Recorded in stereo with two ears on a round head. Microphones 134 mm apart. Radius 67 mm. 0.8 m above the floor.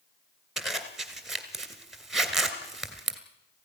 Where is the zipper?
Centre (ahead or behind), 2 m.